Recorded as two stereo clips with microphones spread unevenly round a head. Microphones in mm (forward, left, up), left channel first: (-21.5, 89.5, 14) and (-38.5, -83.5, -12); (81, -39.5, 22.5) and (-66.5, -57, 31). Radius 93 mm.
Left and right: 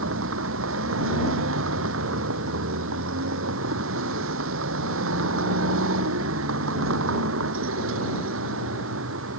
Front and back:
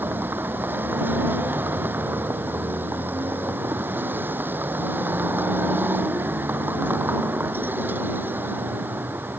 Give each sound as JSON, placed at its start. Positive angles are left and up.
{"t": 0.0, "sound": "a vehicle", "azimuth_deg": -95}